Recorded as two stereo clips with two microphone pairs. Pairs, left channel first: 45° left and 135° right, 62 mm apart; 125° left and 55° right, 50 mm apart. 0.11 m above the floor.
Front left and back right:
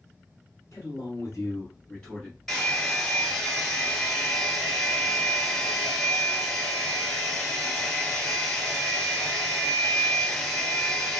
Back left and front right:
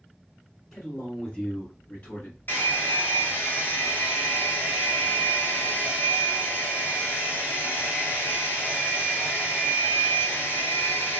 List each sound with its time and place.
0.7 s a man speaking: 30° left, 1.9 m; by 2.4 s 140° left, 1.3 m
2.5 s a hair dryer: 125° left, 1.7 m